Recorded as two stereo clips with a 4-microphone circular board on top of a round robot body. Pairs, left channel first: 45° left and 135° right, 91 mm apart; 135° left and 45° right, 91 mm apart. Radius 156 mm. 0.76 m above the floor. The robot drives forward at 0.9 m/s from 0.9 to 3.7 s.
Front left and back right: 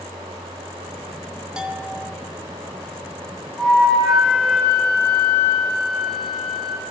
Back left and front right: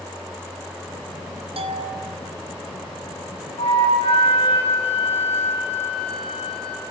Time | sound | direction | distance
1.6 | a bell | 55° right | 3.5 m
3.6 | a flute | 130° left | 8 m